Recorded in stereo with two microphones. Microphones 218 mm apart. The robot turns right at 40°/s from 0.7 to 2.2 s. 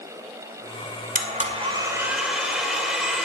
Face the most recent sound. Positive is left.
turn(degrees=-5)